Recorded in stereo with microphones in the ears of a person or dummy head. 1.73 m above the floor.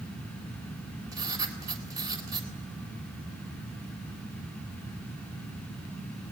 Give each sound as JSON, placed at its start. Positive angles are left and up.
{"t": 1.1, "sound": "writing", "side_deg": -20, "distance_m": 3.5}